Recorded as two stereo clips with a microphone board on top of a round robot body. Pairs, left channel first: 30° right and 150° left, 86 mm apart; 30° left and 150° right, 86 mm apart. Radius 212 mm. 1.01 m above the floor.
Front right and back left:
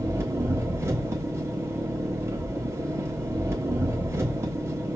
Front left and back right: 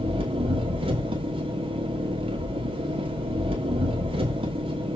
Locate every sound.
0.0 s an engine running: 150° right, 1.2 m